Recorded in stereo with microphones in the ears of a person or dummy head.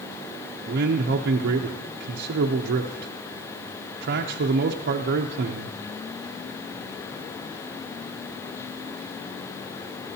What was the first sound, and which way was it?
A man speaking, 60° right (ahead or behind).